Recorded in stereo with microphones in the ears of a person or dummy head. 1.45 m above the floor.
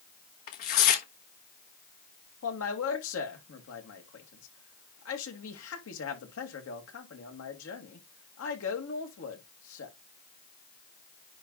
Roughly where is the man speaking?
Left.